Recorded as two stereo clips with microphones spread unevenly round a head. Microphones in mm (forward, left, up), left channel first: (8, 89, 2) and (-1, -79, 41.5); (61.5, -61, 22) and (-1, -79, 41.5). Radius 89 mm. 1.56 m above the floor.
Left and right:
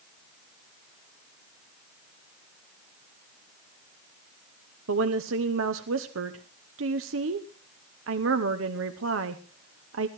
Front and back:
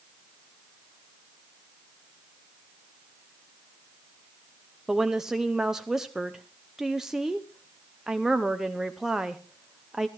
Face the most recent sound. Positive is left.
turn(degrees=-80)